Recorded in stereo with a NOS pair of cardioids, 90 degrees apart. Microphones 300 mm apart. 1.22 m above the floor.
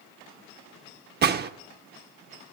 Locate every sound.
1.2 s a gunshot: 35° right, 0.6 m